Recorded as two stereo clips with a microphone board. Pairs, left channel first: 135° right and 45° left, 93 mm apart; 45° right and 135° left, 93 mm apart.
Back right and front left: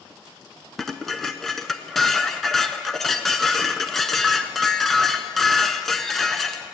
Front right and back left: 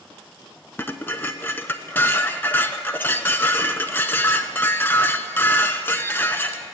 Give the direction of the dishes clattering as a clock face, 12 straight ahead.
2 o'clock.